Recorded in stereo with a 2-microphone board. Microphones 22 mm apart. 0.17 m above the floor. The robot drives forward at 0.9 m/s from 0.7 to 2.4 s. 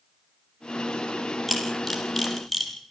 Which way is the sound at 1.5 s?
5° left (ahead or behind).